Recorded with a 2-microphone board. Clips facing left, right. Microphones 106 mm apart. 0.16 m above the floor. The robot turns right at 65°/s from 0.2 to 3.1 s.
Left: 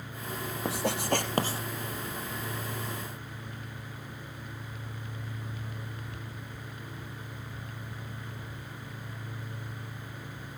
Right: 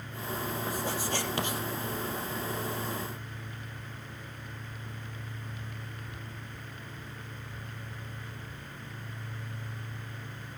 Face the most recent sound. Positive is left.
turn(degrees=-110)